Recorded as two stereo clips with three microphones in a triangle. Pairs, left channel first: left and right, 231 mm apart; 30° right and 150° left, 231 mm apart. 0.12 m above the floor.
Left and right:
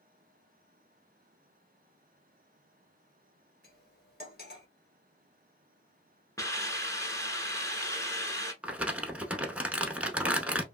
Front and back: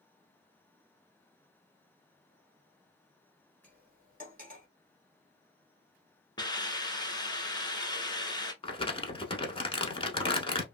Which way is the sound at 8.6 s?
15° right.